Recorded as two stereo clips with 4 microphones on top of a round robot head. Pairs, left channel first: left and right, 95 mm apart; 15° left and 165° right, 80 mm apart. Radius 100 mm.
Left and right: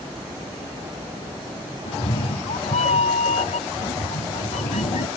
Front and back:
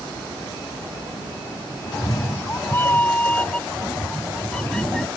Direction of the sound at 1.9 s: 65° left.